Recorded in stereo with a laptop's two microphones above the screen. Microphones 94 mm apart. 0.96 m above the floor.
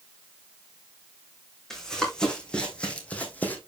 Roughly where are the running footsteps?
Centre.